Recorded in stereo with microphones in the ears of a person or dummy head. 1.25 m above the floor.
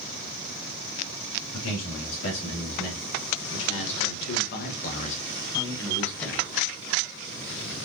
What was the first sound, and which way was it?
A man speaking, 80° left.